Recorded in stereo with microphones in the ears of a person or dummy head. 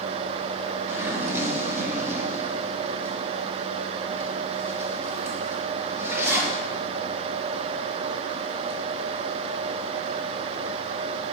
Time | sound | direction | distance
0.9 | a zipper | 15° right (ahead or behind) | 1.3 m